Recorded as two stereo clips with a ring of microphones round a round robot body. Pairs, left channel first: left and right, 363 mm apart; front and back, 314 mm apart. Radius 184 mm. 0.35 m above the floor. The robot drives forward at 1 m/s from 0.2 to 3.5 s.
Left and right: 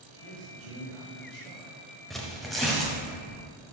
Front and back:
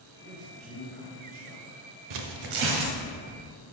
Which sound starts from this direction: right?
A man speaking, at 0.2 s.